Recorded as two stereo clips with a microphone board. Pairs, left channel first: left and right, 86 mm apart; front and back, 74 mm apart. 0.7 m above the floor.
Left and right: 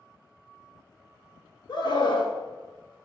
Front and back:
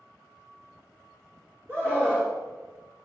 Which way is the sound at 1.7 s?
125° left.